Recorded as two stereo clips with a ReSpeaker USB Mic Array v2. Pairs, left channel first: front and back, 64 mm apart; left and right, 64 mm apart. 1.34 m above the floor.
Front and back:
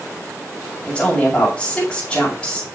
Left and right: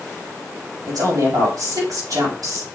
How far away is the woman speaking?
About 4 m.